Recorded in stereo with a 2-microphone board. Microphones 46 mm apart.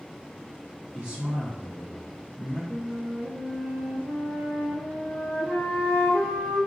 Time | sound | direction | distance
0.9 | a man speaking | 20° right (ahead or behind) | 1.6 m
2.7 | a flute | 65° right (ahead or behind) | 1.0 m